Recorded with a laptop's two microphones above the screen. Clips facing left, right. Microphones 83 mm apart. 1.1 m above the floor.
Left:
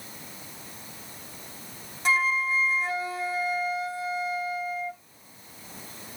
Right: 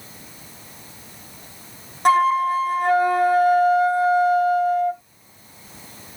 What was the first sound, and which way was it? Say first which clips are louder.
A flute: right 10 dB; 55° right (ahead or behind).